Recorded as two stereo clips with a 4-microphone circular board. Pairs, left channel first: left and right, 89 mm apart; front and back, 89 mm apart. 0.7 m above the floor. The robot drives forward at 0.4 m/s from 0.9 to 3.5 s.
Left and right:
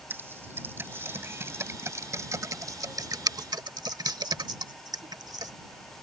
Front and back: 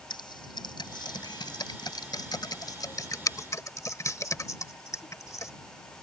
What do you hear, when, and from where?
0.1 s typing on a keyboard: 25° right; by 5.5 s 50° right